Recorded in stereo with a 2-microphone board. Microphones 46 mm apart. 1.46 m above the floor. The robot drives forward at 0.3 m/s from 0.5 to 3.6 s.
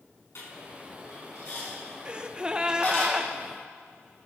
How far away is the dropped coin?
About 5.5 m.